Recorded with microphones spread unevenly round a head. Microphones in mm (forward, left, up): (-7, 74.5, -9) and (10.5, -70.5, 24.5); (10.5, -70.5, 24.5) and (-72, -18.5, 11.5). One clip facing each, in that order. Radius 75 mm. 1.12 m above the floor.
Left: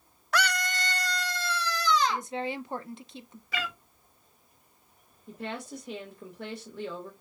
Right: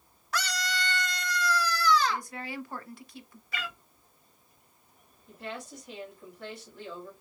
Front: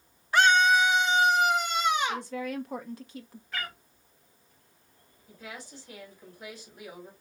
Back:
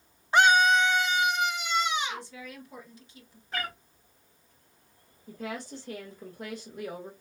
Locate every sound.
0.3 s a scream: 80° left, 0.6 m; by 2.3 s 25° left, 1.4 m
2.1 s a woman speaking: 30° left, 0.6 m
3.5 s a cat meowing: 70° left, 1.0 m
5.3 s a woman speaking: 110° left, 1.8 m